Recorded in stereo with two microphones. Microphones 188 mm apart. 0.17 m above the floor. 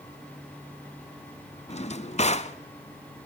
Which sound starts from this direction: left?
A drawer, at 1.7 s.